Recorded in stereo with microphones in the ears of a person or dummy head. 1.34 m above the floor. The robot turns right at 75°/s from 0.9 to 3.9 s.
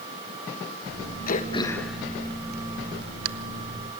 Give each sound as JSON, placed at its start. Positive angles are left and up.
{"t": 1.3, "sound": "throat clearing", "side_deg": 50, "distance_m": 1.4}